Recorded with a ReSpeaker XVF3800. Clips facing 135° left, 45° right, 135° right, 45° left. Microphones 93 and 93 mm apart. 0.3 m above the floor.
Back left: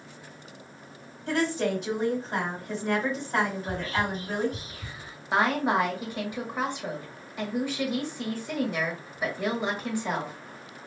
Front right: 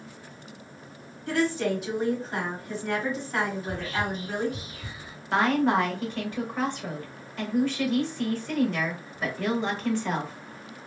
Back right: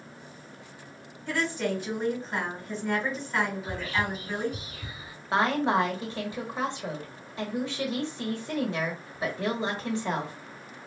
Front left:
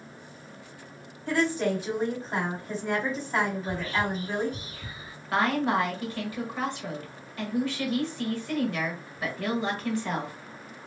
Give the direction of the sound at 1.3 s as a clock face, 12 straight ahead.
9 o'clock.